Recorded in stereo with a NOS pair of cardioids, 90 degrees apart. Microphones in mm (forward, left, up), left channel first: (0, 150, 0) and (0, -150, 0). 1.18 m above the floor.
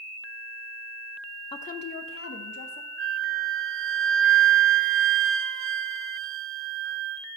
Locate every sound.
1.5 s a woman speaking: 15° left, 0.8 m; by 2.9 s 60° left, 2 m
3.0 s a flute: 45° right, 0.6 m